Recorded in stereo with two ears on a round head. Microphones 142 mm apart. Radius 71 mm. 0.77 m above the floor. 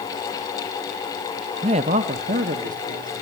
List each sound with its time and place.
1.6 s a man speaking: 35° right (ahead or behind), 0.6 m; by 3.2 s 55° right (ahead or behind), 1.9 m